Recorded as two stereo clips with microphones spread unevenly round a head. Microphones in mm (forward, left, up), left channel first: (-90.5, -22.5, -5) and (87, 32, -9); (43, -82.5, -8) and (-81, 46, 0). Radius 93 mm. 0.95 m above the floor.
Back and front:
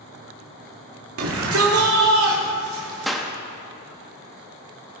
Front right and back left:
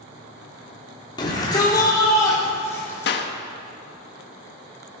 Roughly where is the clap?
Right.